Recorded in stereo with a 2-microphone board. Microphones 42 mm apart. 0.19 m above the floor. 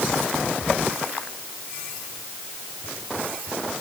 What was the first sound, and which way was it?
Only background noise.